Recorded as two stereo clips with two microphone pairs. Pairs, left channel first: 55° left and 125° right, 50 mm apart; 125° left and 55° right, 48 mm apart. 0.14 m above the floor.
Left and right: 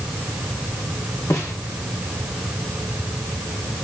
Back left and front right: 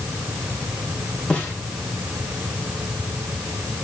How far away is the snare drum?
About 6 m.